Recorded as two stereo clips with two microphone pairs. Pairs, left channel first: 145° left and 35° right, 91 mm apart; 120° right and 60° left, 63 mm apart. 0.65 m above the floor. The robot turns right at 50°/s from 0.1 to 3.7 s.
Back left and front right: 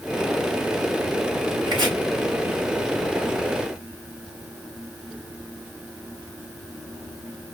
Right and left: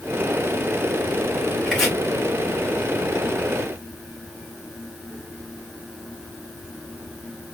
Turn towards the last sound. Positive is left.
turn(degrees=60)